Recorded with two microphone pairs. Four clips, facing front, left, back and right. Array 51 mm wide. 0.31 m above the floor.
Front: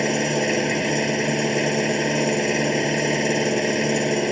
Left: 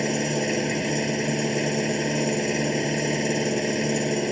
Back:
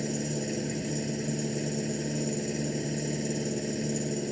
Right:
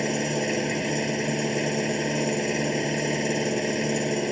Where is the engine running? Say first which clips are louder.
Left 1 dB, front 11 dB; 5° right.